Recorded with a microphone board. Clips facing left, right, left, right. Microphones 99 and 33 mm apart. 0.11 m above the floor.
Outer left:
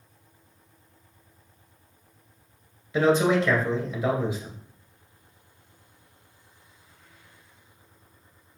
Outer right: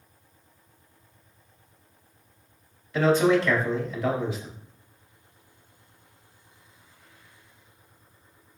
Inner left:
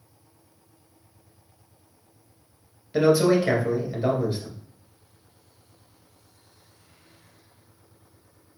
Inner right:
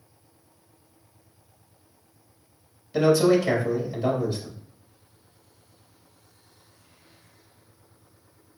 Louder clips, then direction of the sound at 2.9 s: Even, even; 20° left (ahead or behind).